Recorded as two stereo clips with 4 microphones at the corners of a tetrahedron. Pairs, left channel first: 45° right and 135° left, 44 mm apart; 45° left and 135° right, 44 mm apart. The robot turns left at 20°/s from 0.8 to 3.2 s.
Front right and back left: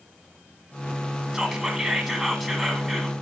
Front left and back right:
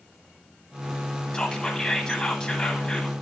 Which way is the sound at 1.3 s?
75° left.